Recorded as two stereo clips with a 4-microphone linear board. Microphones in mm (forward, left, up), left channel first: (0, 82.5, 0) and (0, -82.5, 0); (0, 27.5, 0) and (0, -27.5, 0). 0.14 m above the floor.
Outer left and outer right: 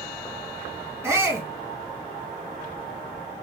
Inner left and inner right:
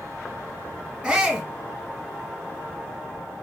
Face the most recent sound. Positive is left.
turn(degrees=-15)  # may be behind; listen again after turning